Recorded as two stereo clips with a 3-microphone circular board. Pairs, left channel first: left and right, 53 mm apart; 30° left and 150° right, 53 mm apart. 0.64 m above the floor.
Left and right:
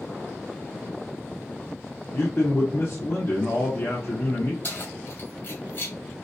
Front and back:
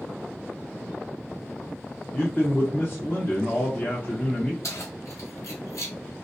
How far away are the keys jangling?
About 1.6 m.